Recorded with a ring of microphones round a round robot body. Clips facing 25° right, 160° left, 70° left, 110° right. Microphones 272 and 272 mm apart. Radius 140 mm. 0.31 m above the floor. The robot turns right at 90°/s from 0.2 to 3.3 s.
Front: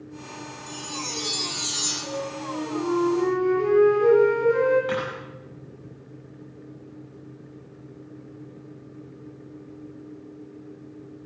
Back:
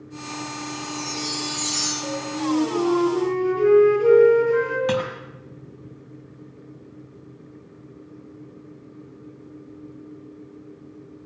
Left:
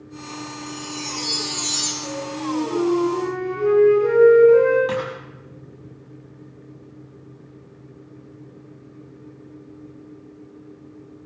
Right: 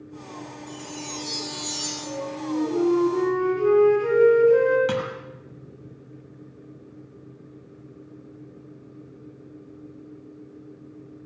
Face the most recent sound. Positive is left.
turn(degrees=-165)